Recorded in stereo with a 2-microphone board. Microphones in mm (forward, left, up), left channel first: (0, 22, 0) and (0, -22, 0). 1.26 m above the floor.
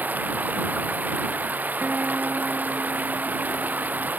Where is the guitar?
45° right (ahead or behind).